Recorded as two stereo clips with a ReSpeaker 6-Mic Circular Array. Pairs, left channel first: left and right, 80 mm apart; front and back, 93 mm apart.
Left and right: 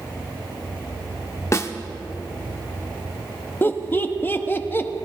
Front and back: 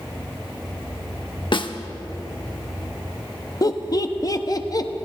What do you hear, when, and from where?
1.5 s a snare drum: 35° left, 0.8 m
3.6 s laughter: 30° left, 0.8 m